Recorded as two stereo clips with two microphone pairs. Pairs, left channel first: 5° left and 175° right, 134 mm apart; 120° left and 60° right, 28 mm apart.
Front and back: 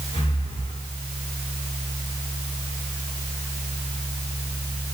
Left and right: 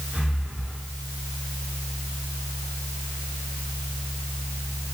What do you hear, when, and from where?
0.1 s breathing: 30° right, 7.5 m